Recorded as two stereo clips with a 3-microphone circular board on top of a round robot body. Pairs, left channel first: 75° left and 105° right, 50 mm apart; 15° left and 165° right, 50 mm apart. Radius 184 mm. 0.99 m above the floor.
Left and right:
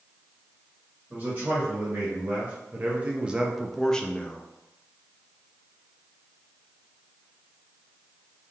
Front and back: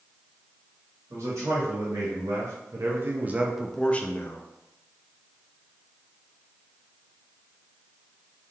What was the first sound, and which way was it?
A man speaking, 155° right.